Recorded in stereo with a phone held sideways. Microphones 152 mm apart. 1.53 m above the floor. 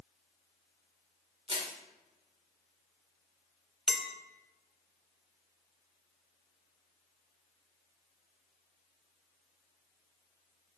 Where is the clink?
Centre (ahead or behind), 0.6 m.